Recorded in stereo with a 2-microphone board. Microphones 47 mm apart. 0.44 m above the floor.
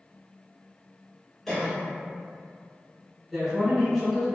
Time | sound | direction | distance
1.5 | a cough | 10° left (ahead or behind) | 0.8 m
3.3 | a man speaking | 5° left (ahead or behind) | 0.9 m